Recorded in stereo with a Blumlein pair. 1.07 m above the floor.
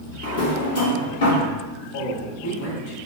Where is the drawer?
55° left, 0.9 m.